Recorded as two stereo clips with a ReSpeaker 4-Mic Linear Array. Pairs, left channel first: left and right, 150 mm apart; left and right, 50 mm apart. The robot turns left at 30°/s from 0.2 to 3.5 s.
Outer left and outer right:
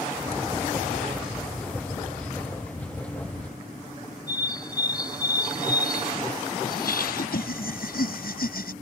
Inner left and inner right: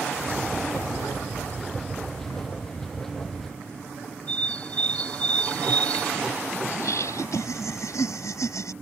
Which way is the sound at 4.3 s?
30° left (ahead or behind).